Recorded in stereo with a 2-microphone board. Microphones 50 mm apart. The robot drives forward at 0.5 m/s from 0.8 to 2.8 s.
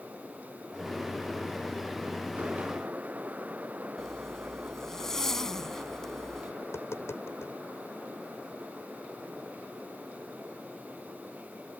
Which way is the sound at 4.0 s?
10° left (ahead or behind).